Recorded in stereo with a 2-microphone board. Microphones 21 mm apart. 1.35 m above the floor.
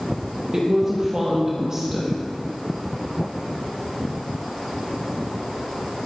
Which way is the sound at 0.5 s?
35° right (ahead or behind).